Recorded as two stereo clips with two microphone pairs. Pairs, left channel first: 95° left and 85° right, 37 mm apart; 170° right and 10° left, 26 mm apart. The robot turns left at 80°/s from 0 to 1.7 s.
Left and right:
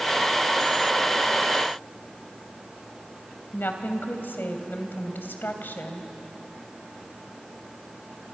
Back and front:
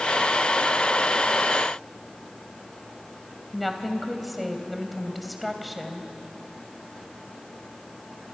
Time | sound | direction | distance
3.5 | a woman speaking | 100° left | 2.5 m